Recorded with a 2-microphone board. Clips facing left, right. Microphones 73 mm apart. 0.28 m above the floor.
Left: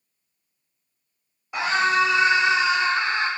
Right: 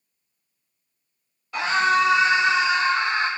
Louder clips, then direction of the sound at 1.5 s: Right 1 dB; 20° left (ahead or behind).